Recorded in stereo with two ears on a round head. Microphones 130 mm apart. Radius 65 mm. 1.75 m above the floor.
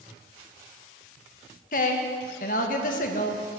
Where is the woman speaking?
60° left (ahead or behind), 1.5 m.